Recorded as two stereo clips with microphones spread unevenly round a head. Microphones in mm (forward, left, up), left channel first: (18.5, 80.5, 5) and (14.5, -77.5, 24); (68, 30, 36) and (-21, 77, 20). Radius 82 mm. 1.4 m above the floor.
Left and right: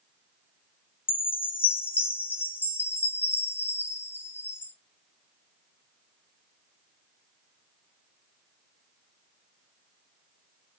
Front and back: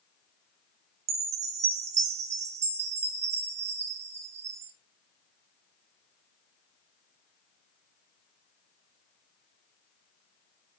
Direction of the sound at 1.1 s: 170° left.